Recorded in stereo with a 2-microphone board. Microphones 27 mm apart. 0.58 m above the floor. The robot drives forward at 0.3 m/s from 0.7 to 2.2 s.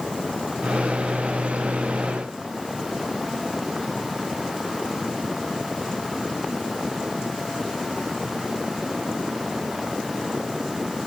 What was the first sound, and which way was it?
Only background noise.